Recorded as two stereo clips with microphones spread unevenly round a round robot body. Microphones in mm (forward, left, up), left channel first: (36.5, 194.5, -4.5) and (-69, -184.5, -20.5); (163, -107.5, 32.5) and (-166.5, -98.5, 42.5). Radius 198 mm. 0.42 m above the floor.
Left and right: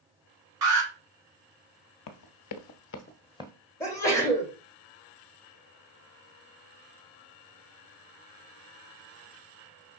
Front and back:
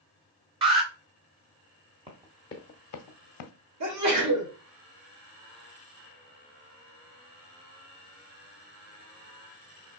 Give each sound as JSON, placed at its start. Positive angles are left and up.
{"t": 0.6, "sound": "an alarm", "azimuth_deg": -110, "distance_m": 2.5}
{"t": 2.1, "sound": "running footsteps", "azimuth_deg": 105, "distance_m": 0.6}
{"t": 3.8, "sound": "a sneeze", "azimuth_deg": 155, "distance_m": 1.7}